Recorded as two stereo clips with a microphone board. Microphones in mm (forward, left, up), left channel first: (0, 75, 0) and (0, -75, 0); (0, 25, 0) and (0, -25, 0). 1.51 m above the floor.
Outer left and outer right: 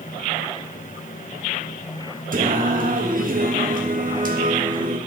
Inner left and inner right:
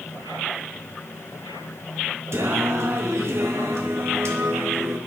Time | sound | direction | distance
2.3 | singing | 60° right (ahead or behind) | 1.4 m